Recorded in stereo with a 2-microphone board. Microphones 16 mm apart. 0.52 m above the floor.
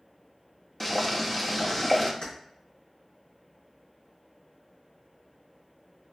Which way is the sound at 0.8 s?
10° left (ahead or behind).